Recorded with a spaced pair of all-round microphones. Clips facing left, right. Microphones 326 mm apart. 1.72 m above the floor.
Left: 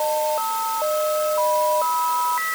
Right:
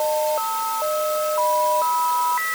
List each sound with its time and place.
Only background noise.